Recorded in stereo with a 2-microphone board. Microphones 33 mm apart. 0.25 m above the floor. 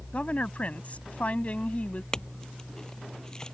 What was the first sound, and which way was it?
A woman speaking, 45° left (ahead or behind).